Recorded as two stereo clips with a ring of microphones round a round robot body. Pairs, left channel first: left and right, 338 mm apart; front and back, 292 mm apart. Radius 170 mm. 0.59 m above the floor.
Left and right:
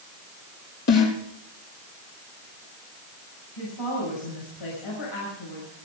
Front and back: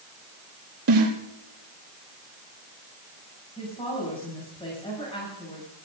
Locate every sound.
0.9 s a snare drum: 140° left, 4.5 m
3.6 s a woman speaking: 70° left, 6.5 m